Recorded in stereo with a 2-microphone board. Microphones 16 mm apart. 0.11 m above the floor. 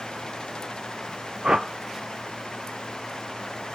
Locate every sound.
1.4 s a whoosh: 60° right (ahead or behind), 0.7 m